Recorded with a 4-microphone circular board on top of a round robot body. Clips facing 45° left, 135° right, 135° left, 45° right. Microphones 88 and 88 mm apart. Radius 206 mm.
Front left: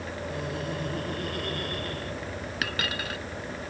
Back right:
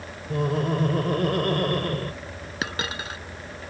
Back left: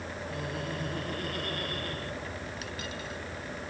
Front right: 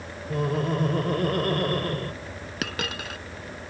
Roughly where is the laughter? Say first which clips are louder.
Back right 11 dB, front right 12 dB; right.